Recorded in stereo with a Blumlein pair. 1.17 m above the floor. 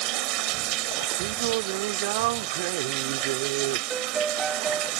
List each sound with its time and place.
0.0 s running water: 40° right
1.2 s singing: 50° right
3.9 s a piano: 15° right